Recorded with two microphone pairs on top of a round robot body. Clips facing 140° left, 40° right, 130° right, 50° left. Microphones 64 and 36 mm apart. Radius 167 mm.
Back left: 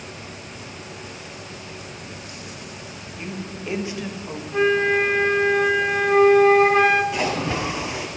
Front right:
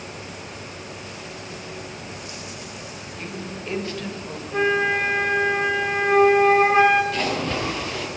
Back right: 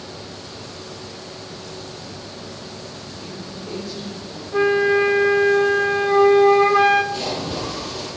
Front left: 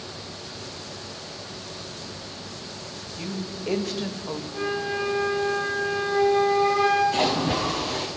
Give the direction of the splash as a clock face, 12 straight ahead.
10 o'clock.